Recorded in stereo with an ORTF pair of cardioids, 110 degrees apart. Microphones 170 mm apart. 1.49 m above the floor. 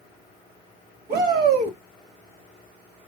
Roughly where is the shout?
Ahead right.